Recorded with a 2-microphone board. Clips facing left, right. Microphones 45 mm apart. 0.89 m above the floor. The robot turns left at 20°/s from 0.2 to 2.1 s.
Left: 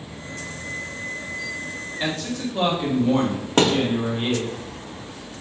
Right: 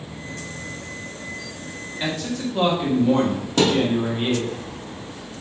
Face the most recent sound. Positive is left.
turn(degrees=45)  # may be behind; listen again after turning